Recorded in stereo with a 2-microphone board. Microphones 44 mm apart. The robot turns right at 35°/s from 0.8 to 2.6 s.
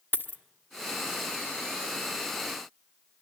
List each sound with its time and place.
0.1 s a dropped coin: 50° left (ahead or behind), 1.1 m